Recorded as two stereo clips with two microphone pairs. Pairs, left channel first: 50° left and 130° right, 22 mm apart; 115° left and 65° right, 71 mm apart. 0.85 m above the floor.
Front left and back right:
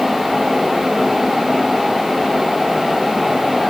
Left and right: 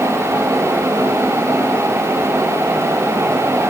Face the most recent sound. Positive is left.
No sound to turn to.